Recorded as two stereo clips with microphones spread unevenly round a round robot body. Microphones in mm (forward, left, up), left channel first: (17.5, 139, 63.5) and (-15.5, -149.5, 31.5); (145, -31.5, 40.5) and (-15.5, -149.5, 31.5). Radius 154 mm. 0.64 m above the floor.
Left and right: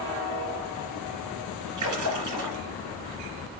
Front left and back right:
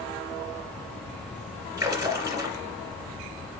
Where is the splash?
70° right, 2 m.